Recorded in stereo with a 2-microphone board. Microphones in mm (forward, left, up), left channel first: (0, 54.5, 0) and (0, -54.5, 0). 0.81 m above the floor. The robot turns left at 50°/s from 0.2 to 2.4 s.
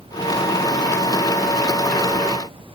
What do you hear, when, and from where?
Only background noise.